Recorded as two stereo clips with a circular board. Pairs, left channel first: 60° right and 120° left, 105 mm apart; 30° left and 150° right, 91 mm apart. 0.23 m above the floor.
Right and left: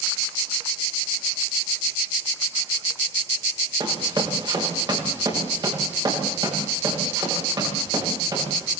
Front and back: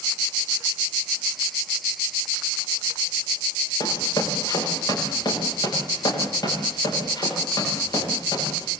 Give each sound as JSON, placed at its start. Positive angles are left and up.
{"t": 3.8, "sound": "running footsteps", "azimuth_deg": 75, "distance_m": 7.5}